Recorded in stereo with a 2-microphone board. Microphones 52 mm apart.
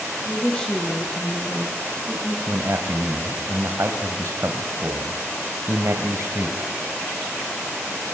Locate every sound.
0.2 s a woman speaking: 20° left (ahead or behind), 5.5 m; by 2.4 s centre (ahead or behind), 5 m
2.5 s a man speaking: 60° right (ahead or behind), 2 m